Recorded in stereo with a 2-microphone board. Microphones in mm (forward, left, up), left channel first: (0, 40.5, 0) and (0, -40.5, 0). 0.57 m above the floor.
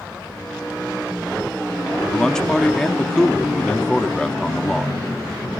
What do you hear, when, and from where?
2.1 s a man speaking: 10° left (ahead or behind), 0.6 m